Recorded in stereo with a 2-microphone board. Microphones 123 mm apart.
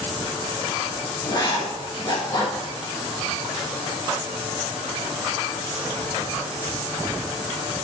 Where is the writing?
35° left (ahead or behind), 5 m.